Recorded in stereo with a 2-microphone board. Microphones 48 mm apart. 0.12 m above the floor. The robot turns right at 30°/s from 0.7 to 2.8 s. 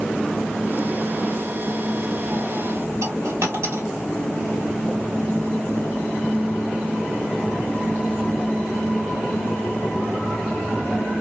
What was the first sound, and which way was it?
A dropped coin, 60° right (ahead or behind).